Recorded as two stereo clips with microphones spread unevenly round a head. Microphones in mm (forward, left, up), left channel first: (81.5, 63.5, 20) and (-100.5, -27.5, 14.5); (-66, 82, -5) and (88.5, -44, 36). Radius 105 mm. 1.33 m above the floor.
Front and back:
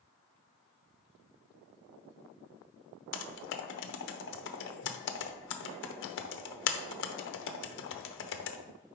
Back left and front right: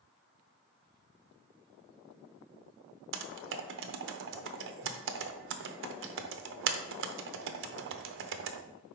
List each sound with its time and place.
3.1 s typing on a keyboard: 10° right, 0.7 m